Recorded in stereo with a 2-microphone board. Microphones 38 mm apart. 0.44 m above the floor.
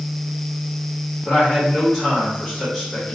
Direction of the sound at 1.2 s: Centre (ahead or behind).